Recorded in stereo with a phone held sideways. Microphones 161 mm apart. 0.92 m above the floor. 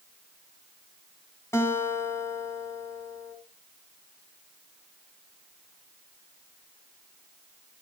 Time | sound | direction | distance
1.5 | a guitar | 15° left (ahead or behind) | 3 m